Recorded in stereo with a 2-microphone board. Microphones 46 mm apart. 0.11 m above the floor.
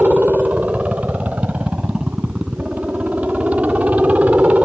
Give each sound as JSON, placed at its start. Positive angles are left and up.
{"t": 0.0, "sound": "a helicopter", "side_deg": -30}